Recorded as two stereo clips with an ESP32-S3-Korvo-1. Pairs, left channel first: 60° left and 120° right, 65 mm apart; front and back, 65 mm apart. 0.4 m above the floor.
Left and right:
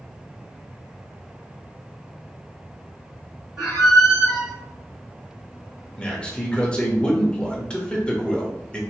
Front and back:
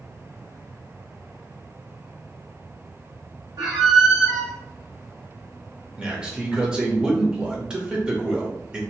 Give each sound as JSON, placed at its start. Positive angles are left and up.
{"t": 3.6, "sound": "a squeak", "azimuth_deg": 150, "distance_m": 1.7}
{"t": 6.0, "sound": "a man speaking", "azimuth_deg": 115, "distance_m": 0.9}